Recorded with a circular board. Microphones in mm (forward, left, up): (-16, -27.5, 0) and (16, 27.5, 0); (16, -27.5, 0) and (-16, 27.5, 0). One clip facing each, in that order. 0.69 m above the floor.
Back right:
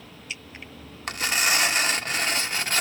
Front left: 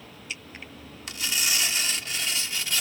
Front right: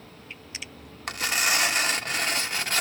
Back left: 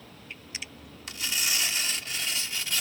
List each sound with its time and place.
1.1 s tearing paper: 90° right